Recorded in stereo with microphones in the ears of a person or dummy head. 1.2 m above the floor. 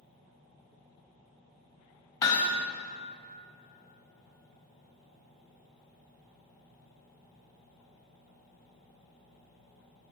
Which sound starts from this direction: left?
Hammering, at 2.2 s.